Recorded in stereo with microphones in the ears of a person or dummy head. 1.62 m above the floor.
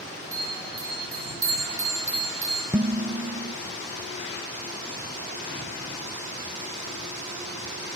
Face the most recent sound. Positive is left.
turn(degrees=-15)  # may be behind; listen again after turning